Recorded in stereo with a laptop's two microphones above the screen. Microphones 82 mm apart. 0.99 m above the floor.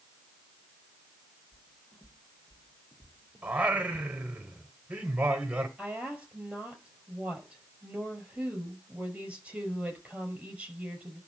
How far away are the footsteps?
About 2.5 m.